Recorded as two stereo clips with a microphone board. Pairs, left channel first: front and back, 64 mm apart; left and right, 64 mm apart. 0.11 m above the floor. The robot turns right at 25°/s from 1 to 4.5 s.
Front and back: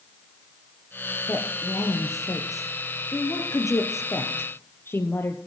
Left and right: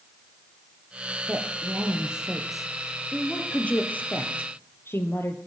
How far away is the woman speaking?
About 3 m.